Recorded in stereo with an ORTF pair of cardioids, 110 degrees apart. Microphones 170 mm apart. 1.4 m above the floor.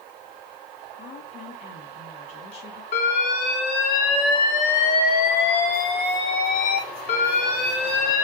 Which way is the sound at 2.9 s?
55° left.